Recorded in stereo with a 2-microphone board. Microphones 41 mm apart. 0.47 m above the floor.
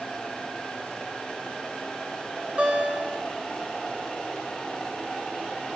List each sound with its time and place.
2.6 s a guitar: 35° right (ahead or behind), 1.3 m